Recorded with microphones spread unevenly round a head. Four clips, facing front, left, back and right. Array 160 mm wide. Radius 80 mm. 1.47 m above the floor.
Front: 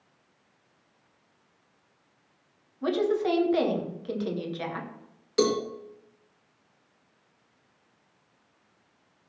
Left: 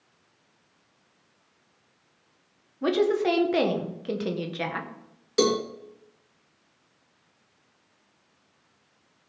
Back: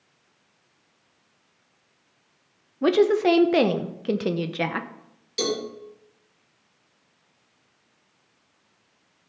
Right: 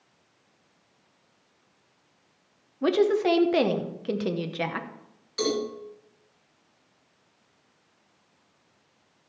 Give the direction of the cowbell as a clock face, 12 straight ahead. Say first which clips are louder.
Left 4 dB, front 3 dB; 10 o'clock.